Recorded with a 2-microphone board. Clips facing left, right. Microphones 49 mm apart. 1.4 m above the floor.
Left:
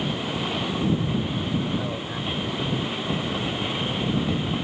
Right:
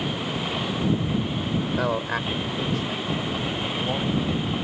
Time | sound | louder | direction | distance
1.7 | a man speaking | right 4 dB | 70° right (ahead or behind) | ?